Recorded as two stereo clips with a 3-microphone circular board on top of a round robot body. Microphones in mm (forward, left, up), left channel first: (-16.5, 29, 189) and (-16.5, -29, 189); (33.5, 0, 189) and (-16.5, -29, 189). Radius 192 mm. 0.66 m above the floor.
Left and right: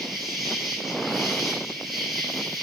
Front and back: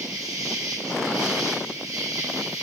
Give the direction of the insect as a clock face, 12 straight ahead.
6 o'clock.